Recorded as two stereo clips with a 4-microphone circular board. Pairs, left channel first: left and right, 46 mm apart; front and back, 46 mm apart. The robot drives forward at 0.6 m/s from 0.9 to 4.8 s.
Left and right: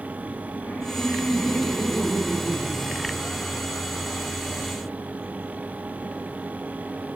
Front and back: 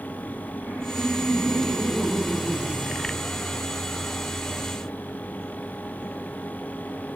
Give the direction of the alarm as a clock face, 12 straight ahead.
I don't hear an alarm.